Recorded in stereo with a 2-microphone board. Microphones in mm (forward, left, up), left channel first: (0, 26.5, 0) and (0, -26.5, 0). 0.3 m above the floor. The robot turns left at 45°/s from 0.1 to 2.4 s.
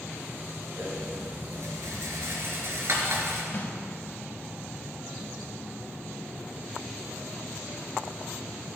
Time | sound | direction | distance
0.8 | a rattle | 50° right (ahead or behind) | 2.5 m
3.5 | a snare drum | 40° left (ahead or behind) | 1.5 m